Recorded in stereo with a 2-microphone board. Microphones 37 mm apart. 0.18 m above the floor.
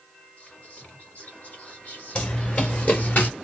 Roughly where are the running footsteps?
Left.